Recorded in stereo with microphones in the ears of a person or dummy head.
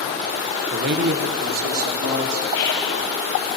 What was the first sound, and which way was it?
A man speaking, 45° right (ahead or behind).